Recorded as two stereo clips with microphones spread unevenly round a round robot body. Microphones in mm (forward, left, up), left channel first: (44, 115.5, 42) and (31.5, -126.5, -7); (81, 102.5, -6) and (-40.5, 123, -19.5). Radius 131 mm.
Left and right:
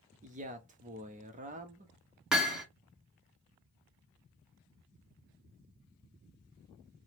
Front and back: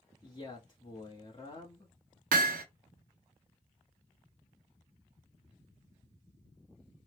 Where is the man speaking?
70° right, 0.7 m.